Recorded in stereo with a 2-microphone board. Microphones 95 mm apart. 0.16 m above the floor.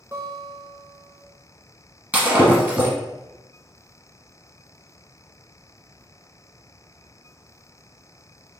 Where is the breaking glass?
20° right (ahead or behind), 1.5 m.